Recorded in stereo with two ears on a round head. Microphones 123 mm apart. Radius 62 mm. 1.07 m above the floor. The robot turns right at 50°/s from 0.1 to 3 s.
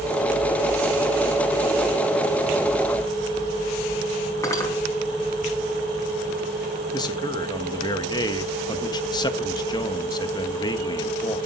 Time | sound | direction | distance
4.4 | cutlery clinking | 20° left (ahead or behind) | 5.5 m
6.9 | a man speaking | 30° left (ahead or behind) | 1.5 m